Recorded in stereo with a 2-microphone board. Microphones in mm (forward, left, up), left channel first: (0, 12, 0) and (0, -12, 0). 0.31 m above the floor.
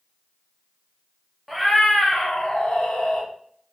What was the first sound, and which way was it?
A cat meowing, centre (ahead or behind).